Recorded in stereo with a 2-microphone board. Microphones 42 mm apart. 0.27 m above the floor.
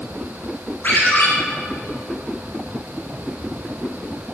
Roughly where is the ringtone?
Left.